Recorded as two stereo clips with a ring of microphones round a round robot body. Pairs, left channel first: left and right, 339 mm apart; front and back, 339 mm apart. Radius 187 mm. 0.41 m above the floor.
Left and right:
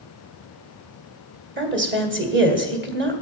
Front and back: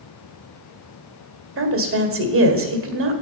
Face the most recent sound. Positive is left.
turn(degrees=-140)